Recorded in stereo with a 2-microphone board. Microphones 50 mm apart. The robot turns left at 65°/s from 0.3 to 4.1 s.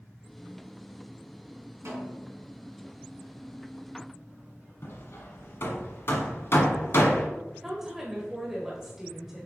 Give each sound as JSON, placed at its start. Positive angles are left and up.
{"t": 1.9, "sound": "a snare drum", "azimuth_deg": -110, "distance_m": 2.5}
{"t": 4.8, "sound": "hammering", "side_deg": 60, "distance_m": 1.1}
{"t": 7.6, "sound": "a woman speaking", "side_deg": -10, "distance_m": 1.4}